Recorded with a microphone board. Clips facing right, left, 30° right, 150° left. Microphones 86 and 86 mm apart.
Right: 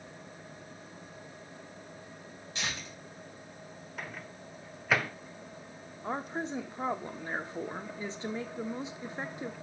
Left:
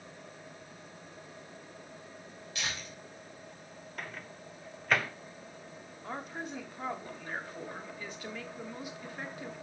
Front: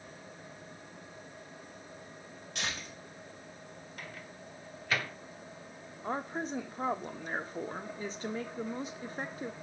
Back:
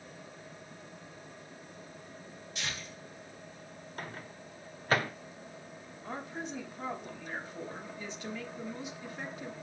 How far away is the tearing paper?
About 3 m.